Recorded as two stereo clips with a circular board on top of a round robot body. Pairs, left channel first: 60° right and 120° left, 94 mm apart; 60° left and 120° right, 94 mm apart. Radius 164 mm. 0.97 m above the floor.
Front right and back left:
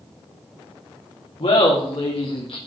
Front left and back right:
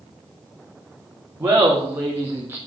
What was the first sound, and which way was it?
Laughter, 55° right.